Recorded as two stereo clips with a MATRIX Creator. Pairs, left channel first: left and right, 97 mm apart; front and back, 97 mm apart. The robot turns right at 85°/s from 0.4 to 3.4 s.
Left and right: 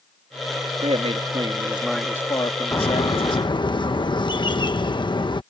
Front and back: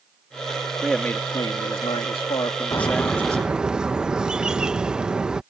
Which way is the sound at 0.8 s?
95° right.